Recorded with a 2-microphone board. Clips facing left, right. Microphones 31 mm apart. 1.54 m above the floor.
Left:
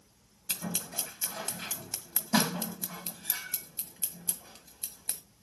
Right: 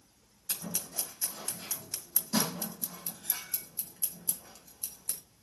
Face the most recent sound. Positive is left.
turn(degrees=45)  # may be behind; listen again after turning